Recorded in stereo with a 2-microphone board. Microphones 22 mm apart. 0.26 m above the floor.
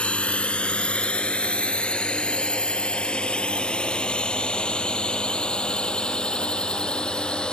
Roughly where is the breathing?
I don't hear breathing.